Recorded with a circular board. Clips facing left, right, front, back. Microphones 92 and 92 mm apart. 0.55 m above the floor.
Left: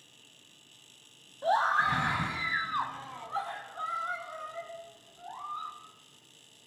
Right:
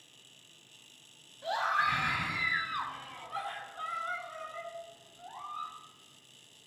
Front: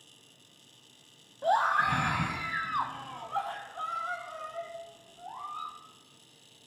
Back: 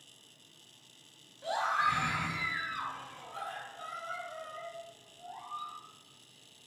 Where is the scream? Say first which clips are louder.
Left 4 dB, front 5 dB; 40° left, 3.5 m; by 5.7 s 15° left, 6 m.